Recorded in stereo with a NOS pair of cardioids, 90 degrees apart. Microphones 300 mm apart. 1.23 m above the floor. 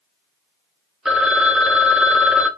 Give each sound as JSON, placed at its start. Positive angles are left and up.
{"t": 1.1, "sound": "a phone ringing", "azimuth_deg": 0, "distance_m": 0.6}